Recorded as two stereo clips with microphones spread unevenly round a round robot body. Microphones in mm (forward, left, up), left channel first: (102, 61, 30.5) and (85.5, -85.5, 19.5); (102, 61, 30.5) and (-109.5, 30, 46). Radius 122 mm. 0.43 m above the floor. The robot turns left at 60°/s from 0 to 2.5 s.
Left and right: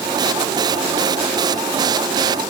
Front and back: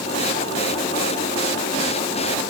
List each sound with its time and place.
Only background noise.